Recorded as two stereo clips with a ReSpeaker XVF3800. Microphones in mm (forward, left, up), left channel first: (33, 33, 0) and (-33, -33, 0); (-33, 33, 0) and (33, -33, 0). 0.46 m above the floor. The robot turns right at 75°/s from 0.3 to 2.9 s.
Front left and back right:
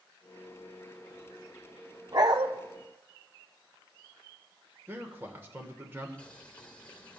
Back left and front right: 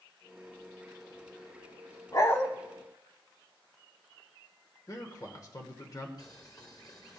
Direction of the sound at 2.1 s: Straight behind.